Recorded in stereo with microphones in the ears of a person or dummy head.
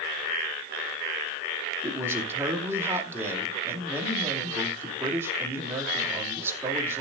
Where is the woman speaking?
15° right (ahead or behind), 2.5 m.